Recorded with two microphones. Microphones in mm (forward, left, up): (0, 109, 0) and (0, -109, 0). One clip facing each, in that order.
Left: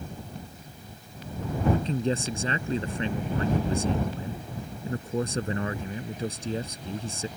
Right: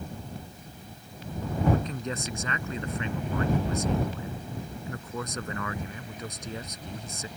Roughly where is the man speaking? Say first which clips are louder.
Left 6 dB; left.